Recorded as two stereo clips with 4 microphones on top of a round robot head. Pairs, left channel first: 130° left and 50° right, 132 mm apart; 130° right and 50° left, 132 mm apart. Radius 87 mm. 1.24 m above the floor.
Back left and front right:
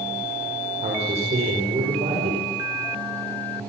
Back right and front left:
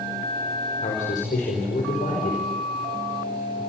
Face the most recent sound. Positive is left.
turn(degrees=-95)